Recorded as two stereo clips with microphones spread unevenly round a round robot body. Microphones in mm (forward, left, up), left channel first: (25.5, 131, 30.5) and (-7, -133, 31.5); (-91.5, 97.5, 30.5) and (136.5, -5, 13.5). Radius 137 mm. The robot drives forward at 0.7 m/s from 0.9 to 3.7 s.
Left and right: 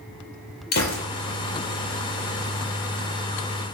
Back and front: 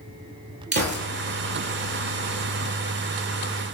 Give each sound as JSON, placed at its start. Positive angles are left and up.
{"t": 0.7, "sound": "a gunshot", "azimuth_deg": 25, "distance_m": 4.5}